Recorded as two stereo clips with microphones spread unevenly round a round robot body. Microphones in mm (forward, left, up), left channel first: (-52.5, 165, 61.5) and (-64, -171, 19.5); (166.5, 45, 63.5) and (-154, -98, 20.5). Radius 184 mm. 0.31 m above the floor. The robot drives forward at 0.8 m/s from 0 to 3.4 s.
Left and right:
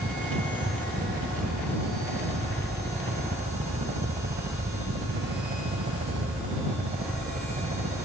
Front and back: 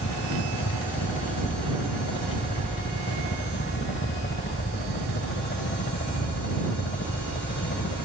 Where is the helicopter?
25° right; by 8.1 s 30° right.